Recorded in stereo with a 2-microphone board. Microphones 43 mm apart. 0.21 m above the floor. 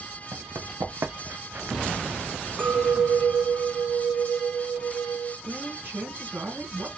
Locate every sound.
0.3 s running footsteps: 80° right, 1.5 m; by 1.8 s 35° right (ahead or behind), 0.6 m
2.6 s a clink: 50° right (ahead or behind), 1.1 m
5.5 s a woman speaking: 55° right (ahead or behind), 2 m